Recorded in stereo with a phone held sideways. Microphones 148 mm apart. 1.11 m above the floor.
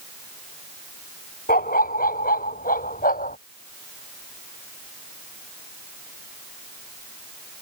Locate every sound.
1.5 s a dog barking: 75° left (ahead or behind); by 3.4 s 70° left (ahead or behind)